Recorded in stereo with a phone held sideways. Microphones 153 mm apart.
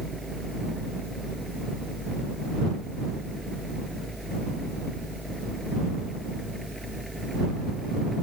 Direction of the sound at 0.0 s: Centre (ahead or behind).